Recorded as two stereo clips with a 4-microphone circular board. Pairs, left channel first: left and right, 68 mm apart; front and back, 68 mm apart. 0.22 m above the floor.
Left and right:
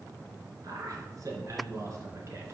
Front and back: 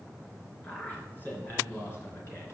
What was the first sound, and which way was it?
A man speaking, 65° right.